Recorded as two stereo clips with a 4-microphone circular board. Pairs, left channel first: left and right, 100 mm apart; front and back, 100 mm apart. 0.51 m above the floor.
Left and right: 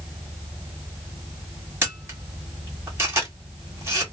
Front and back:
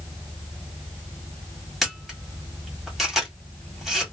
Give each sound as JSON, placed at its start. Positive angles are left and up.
{"t": 1.8, "sound": "a camera shutter", "azimuth_deg": -95, "distance_m": 1.4}